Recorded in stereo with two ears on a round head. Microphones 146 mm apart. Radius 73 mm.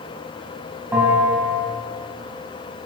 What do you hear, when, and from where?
0.9 s a bell: 10° right (ahead or behind), 2.5 m